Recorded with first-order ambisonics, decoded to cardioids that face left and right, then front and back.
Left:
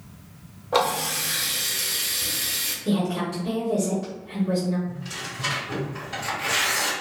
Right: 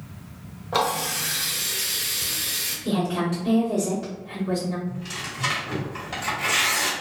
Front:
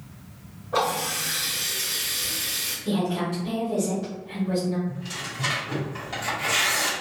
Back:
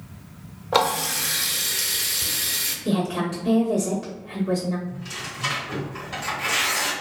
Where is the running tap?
175° left, 0.7 m.